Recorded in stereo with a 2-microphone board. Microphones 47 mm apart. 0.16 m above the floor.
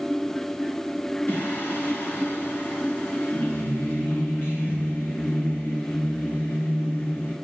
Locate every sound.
1.3 s singing: 50° left (ahead or behind), 1.6 m